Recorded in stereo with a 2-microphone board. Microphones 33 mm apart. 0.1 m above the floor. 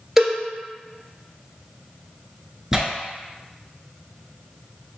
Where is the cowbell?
10° right (ahead or behind), 1.2 m.